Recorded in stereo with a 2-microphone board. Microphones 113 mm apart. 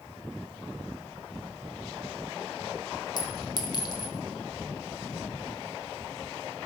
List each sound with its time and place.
3.2 s a clink: 40° left (ahead or behind), 1.1 m